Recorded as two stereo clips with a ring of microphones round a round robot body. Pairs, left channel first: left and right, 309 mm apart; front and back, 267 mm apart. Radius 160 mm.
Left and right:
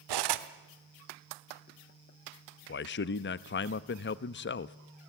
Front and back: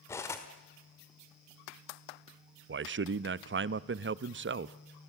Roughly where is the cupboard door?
No cupboard door in this recording.